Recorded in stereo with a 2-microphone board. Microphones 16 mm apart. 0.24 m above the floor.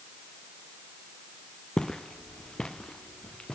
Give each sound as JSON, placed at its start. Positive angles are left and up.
{"t": 1.8, "sound": "footsteps", "side_deg": 45, "distance_m": 0.8}